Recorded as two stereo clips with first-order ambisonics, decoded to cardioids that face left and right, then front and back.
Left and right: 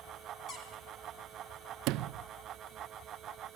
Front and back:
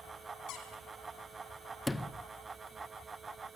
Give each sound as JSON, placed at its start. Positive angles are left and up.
{"t": 0.5, "sound": "a squeak", "azimuth_deg": 30, "distance_m": 3.0}
{"t": 1.9, "sound": "a sliding door", "azimuth_deg": -80, "distance_m": 0.6}